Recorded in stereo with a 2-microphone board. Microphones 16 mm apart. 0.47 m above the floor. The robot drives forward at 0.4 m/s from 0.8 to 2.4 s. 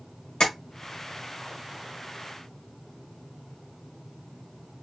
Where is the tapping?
55° left (ahead or behind), 1.3 m.